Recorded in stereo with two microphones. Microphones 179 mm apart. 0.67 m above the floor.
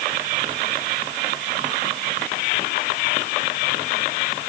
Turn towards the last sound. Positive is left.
No sound to turn to.